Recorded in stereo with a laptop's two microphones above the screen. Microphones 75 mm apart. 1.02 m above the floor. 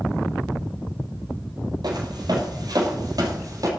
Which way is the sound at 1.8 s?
60° right (ahead or behind).